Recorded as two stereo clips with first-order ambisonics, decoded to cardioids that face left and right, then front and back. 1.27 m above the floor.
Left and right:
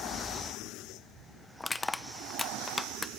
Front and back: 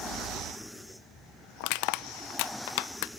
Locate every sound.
1.6 s crushing: 10° left, 0.7 m